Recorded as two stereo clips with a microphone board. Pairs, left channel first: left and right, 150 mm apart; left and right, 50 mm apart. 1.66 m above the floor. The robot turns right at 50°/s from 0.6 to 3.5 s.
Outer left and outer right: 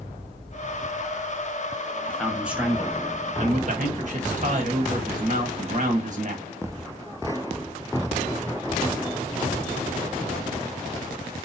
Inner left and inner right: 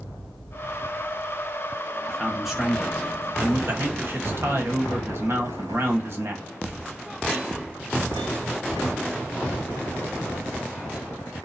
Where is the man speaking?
165° left, 1.5 m; by 6.5 s 120° right, 1.5 m.